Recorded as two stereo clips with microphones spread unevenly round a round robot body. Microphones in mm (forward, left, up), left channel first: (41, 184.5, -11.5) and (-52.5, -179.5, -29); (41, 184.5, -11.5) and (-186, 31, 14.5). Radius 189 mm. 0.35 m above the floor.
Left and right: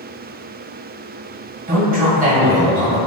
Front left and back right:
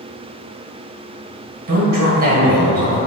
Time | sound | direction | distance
1.7 | a man speaking | 165° right | 1.8 m